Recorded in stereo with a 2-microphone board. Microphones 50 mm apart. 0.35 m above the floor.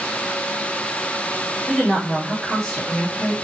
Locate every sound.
1.7 s a woman speaking: 5° left (ahead or behind), 1.4 m